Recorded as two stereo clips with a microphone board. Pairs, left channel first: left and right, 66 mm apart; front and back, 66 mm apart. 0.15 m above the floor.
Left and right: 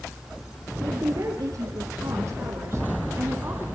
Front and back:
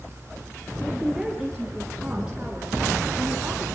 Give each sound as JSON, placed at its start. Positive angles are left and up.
{"t": 0.8, "sound": "a woman speaking", "azimuth_deg": -95, "distance_m": 3.0}